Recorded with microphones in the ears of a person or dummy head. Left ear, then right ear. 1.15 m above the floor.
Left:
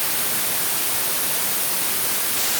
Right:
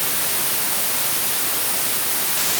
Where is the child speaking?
No child speaking in this recording.